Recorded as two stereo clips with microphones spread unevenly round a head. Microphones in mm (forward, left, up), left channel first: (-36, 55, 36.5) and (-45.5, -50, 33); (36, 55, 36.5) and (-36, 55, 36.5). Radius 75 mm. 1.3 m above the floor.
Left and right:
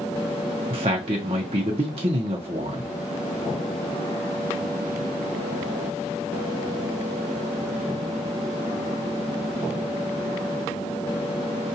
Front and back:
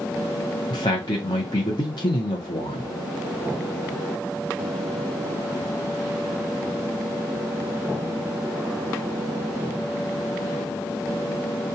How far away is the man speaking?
About 0.8 m.